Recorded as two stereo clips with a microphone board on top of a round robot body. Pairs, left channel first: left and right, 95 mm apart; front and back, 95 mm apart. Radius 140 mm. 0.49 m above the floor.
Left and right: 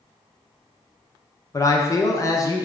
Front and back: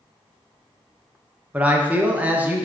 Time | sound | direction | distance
1.5 | a man speaking | 115° left | 0.8 m